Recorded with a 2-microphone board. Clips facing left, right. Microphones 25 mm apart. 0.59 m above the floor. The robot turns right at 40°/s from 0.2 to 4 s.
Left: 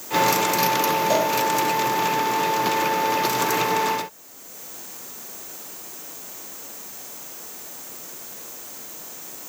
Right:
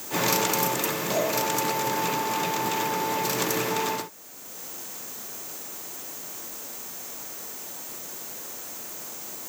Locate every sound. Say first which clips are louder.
1.1 s a cowbell: left 2 dB; 75° left (ahead or behind), 5.5 m; by 1.3 s 80° left, 5.5 m